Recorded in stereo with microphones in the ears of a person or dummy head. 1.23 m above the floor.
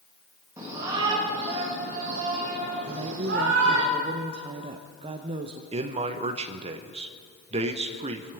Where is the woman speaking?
25° right (ahead or behind), 0.7 m.